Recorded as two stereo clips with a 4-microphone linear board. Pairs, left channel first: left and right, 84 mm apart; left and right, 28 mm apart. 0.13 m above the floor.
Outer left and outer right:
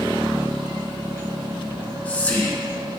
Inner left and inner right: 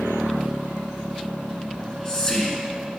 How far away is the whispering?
About 1.8 m.